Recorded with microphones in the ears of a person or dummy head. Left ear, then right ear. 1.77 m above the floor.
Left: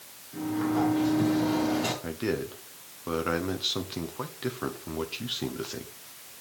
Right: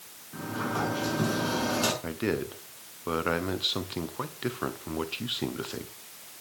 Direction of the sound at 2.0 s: 10° right (ahead or behind).